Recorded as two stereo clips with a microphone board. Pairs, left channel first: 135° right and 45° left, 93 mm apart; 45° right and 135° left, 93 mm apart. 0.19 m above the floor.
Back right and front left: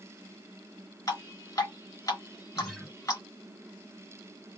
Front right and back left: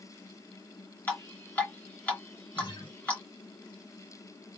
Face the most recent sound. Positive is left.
turn(degrees=-45)